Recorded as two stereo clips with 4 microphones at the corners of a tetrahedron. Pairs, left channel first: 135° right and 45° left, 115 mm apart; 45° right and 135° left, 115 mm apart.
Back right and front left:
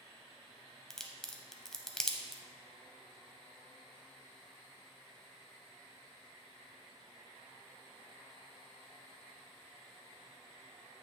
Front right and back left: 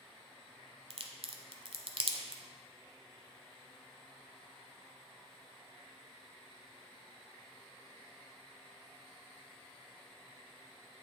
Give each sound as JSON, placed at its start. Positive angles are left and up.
{"t": 0.9, "sound": "a crack", "azimuth_deg": 140, "distance_m": 0.7}